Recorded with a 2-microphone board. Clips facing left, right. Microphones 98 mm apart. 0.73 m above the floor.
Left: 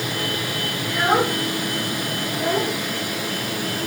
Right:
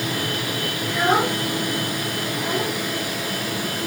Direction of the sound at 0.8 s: 5° left (ahead or behind).